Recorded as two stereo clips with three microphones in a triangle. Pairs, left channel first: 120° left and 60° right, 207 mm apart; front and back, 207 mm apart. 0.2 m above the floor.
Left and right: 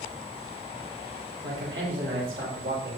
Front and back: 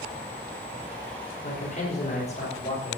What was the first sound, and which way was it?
A man speaking, 50° right.